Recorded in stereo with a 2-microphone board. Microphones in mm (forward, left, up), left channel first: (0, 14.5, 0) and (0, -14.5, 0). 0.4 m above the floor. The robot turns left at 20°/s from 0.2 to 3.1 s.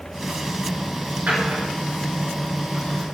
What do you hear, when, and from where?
1.3 s a drawer: 60° right (ahead or behind), 2.5 m; by 3.0 s 80° right, 2.5 m